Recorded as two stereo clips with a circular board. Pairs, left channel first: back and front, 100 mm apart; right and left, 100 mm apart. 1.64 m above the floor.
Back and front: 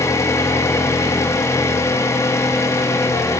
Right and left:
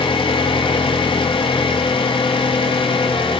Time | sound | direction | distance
0.0 | an engine running | 120° right | 3 m